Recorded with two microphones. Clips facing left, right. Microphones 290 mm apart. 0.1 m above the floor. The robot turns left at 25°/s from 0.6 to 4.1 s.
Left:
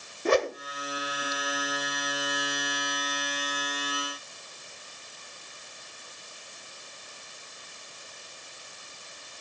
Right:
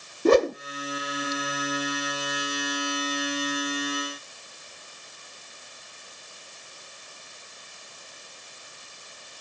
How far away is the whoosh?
About 0.6 m.